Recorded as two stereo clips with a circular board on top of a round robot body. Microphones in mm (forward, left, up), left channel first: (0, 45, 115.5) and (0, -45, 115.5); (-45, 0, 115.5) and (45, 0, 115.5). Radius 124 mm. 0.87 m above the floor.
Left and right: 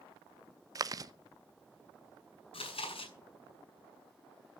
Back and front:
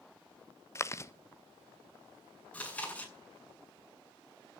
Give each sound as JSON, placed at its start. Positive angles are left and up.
{"t": 0.8, "sound": "chewing", "azimuth_deg": -130, "distance_m": 1.3}
{"t": 2.5, "sound": "chewing", "azimuth_deg": 105, "distance_m": 7.5}